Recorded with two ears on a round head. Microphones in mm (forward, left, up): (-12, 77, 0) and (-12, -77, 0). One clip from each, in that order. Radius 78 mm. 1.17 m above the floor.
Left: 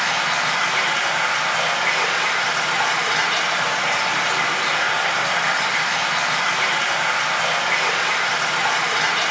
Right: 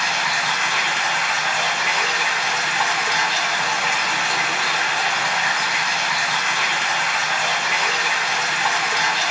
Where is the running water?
25° right (ahead or behind), 1.1 m.